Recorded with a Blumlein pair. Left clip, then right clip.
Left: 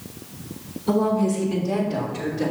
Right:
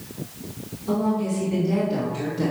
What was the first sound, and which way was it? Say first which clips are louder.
A woman speaking: left 4 dB; 25° left.